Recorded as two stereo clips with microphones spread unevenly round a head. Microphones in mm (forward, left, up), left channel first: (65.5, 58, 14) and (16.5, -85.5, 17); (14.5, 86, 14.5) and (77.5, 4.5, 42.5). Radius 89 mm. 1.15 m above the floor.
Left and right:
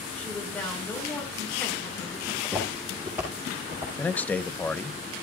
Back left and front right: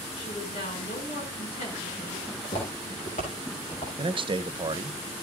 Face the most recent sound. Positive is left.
turn(degrees=-10)